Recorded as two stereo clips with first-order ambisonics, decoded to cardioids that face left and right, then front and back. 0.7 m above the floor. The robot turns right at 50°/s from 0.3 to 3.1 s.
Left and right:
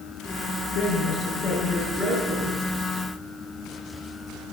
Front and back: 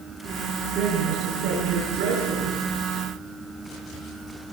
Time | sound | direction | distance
0.8 | a man speaking | 125° left | 9.5 m